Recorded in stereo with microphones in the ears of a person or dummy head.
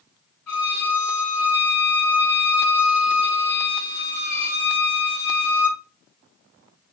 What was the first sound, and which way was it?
A violin, 15° left (ahead or behind).